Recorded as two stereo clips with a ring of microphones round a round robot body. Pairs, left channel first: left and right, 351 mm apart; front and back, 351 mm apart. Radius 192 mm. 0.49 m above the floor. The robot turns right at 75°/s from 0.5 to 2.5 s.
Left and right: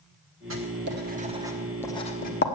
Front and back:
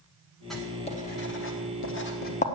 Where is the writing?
90° right, 1.4 m; by 2.5 s 60° left, 1.4 m.